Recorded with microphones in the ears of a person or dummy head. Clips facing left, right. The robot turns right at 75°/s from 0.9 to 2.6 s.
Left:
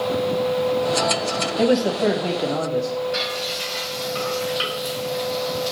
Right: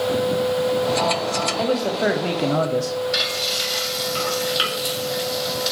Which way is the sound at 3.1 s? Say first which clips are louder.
Even; 35° right (ahead or behind).